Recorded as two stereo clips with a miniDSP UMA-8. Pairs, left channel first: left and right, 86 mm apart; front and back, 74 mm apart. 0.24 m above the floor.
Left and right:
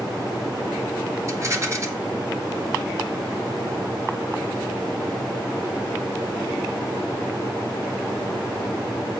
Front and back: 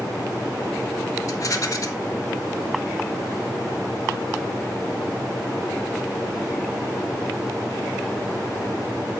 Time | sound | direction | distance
1.3 | a rattle | 40° right | 1.9 m